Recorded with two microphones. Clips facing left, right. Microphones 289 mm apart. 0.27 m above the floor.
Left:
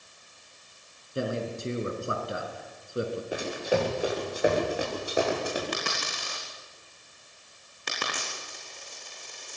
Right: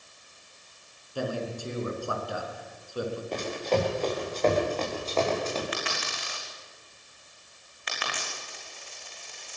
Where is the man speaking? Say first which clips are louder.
Left 1 dB; 25° left (ahead or behind), 3.5 m.